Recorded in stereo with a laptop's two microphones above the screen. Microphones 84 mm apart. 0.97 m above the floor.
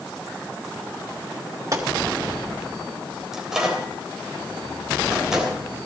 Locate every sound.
1.7 s a gunshot: 40° right (ahead or behind), 1.4 m
3.3 s a microwave: 10° right (ahead or behind), 3 m